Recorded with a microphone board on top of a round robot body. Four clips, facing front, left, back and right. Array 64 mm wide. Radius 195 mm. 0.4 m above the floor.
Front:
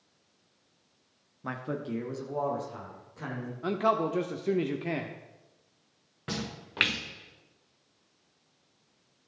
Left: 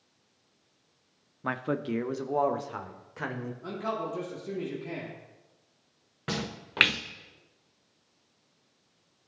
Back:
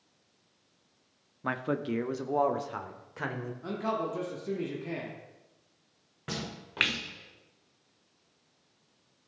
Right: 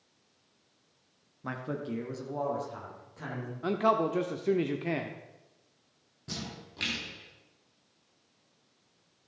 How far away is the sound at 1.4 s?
About 1.2 m.